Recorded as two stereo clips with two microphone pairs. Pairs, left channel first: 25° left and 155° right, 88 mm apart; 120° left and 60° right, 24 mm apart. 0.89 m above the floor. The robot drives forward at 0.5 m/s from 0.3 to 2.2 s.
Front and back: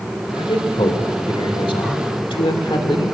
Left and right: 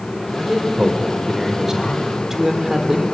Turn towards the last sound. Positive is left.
turn(degrees=10)